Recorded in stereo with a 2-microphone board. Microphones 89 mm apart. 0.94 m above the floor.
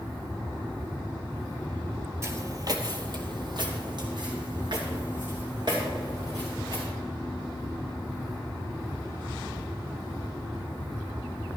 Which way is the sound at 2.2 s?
30° right (ahead or behind).